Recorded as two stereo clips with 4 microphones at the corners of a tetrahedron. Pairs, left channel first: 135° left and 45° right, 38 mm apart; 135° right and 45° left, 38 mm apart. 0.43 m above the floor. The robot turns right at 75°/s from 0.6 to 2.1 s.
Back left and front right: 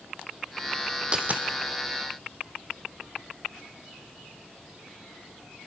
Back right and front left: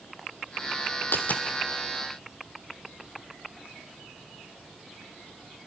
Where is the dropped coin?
110° right, 1.5 m; by 1.4 s 85° right, 1.5 m.